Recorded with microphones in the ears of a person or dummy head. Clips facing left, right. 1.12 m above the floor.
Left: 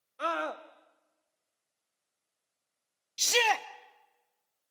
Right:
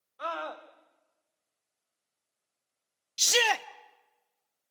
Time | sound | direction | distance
0.2 | a scream | 40° left (ahead or behind) | 1.3 m
3.2 | a shout | 10° right (ahead or behind) | 0.5 m